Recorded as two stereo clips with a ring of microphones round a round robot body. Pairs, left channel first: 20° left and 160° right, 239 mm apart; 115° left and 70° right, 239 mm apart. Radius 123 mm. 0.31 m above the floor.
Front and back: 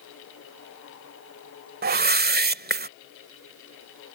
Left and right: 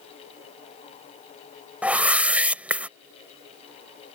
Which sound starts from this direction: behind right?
A whoosh, at 1.8 s.